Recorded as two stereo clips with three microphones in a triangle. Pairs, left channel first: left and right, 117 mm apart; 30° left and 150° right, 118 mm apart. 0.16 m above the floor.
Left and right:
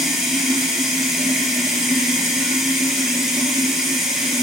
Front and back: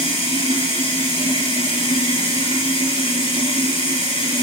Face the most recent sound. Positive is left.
turn(degrees=0)